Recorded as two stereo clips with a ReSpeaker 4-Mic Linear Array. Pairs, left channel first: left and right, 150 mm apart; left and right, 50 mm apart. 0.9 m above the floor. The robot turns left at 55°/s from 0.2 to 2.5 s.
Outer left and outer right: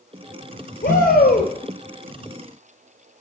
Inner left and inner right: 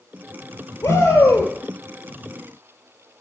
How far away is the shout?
About 3.5 m.